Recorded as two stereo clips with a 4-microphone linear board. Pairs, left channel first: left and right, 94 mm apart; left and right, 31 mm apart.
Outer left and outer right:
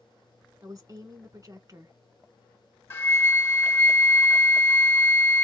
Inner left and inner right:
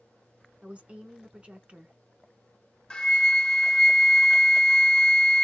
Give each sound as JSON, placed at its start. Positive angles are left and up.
{"t": 0.6, "sound": "a woman speaking", "side_deg": -40, "distance_m": 1.2}
{"t": 2.9, "sound": "a flute", "side_deg": 25, "distance_m": 0.7}